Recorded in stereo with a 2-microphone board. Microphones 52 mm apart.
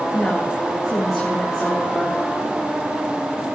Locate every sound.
0.1 s a woman speaking: 5° left (ahead or behind), 8.5 m